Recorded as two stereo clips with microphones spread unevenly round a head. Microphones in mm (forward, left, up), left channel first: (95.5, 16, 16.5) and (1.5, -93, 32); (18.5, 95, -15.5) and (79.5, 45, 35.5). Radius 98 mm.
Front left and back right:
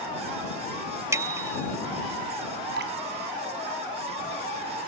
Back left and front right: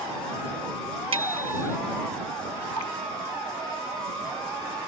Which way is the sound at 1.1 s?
60° right.